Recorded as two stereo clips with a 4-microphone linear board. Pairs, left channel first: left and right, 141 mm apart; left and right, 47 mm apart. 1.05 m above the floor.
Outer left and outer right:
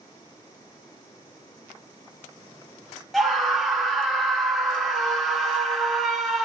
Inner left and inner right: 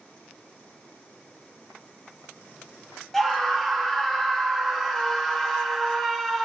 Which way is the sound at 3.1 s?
Centre (ahead or behind).